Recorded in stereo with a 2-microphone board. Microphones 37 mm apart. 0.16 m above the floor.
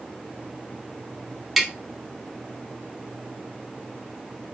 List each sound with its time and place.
1.6 s tapping: 5° right (ahead or behind), 0.6 m